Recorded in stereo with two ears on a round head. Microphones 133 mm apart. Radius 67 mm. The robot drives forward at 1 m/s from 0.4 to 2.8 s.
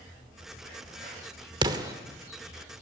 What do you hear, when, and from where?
1.6 s an explosion: 30° right (ahead or behind), 1.1 m; by 1.9 s 25° right (ahead or behind), 1.4 m